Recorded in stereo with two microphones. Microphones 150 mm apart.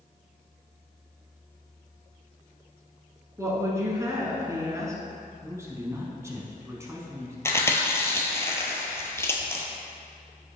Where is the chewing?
15° left (ahead or behind), 1.0 m.